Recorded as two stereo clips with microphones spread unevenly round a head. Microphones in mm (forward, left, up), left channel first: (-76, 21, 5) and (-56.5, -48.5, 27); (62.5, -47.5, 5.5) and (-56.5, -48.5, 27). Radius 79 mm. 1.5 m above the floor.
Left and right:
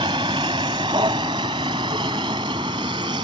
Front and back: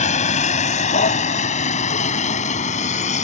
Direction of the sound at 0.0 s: 25° right.